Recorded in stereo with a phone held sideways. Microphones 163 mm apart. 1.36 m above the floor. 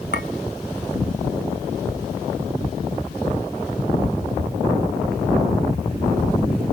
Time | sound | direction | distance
0.1 | a clink | 75° left (ahead or behind) | 1.1 m